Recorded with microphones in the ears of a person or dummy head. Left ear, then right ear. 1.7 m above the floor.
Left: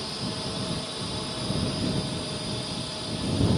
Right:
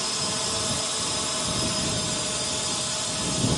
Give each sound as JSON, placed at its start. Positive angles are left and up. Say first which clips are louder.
{"t": 0.0, "sound": "a drone", "louder": "right 5 dB", "side_deg": -50}